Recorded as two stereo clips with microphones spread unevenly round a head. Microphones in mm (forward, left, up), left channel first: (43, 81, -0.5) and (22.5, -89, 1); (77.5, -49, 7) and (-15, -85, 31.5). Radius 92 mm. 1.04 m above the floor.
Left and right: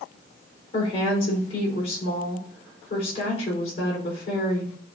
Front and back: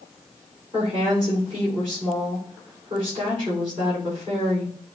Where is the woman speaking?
140° left, 4 m.